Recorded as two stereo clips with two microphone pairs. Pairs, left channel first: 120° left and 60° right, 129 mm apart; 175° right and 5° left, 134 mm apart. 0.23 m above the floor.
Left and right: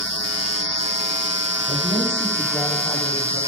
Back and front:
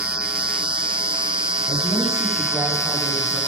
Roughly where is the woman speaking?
Behind left.